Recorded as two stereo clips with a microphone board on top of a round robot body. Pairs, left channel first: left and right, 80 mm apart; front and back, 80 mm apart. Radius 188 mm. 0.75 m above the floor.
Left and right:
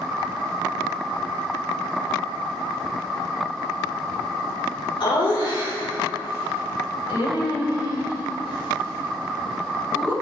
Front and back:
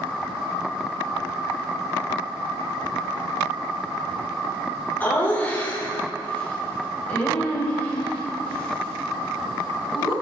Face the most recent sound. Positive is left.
turn(degrees=75)